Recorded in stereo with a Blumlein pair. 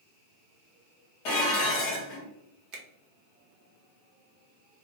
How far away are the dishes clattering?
About 1.1 m.